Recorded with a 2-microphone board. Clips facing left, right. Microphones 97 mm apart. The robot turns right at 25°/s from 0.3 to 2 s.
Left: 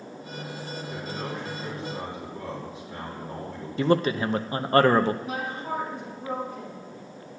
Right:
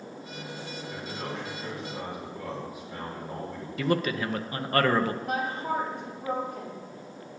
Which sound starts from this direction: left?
A man speaking, at 3.8 s.